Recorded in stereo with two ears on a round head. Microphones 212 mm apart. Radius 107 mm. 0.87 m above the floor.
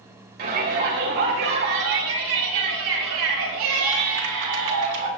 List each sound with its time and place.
0.4 s a shout: 35° right (ahead or behind), 3 m; by 5.1 s 80° right, 5.5 m